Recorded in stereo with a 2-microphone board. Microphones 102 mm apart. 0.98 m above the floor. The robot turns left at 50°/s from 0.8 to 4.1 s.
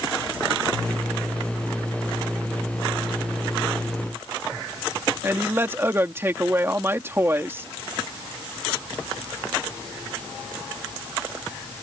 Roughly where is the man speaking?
Right.